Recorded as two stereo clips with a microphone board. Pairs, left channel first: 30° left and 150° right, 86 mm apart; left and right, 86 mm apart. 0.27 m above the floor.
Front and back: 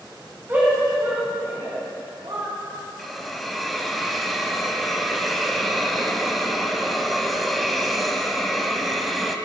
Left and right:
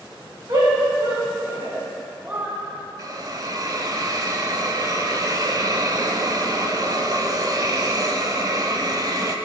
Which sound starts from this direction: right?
A shout, at 0.5 s.